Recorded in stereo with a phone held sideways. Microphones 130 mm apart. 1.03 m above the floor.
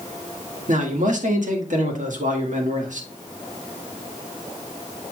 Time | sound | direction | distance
0.7 | a man speaking | 75° right (ahead or behind) | 1.9 m